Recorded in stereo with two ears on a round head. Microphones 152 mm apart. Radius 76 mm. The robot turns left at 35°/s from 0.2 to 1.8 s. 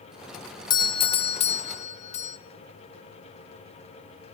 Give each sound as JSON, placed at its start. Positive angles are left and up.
{"t": 0.7, "sound": "a doorbell", "azimuth_deg": 135, "distance_m": 1.0}